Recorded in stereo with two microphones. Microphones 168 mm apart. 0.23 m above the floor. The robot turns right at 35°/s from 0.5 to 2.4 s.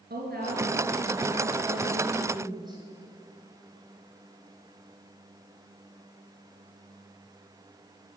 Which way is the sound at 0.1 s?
95° right.